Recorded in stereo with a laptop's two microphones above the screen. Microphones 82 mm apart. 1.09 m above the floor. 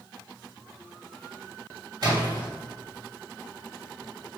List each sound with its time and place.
2.0 s a splash: 50° right (ahead or behind), 2.0 m